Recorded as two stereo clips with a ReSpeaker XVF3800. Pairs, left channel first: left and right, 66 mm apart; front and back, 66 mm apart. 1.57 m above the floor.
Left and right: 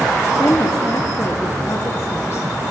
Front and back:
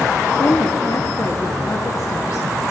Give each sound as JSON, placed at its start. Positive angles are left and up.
{"t": 0.4, "sound": "a woman speaking", "azimuth_deg": 40, "distance_m": 1.1}